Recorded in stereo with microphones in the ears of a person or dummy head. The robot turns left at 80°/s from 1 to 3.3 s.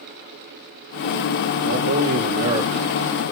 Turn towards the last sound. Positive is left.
turn(degrees=165)